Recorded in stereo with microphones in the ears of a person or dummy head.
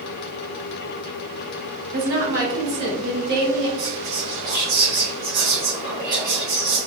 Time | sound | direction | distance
1.9 | a woman speaking | 60° right (ahead or behind) | 1.0 m
3.8 | whispering | 25° right (ahead or behind) | 1.1 m